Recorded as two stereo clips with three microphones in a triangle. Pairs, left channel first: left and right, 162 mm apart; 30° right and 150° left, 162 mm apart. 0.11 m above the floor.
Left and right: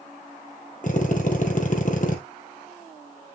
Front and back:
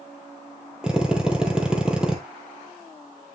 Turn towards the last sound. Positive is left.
turn(degrees=65)